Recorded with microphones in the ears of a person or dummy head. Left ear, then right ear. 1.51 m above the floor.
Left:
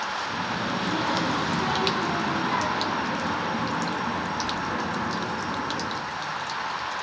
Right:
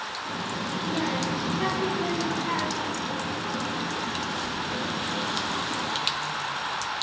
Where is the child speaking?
65° right (ahead or behind), 1.9 m; by 5.8 s 35° left (ahead or behind), 2.5 m.